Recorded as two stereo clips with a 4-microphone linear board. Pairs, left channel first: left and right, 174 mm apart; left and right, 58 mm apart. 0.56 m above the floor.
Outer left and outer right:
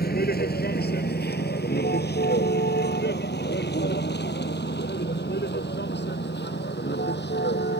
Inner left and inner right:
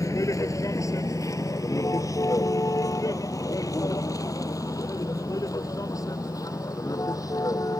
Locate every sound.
0.0 s a vehicle: 65° left (ahead or behind); by 7.8 s 80° left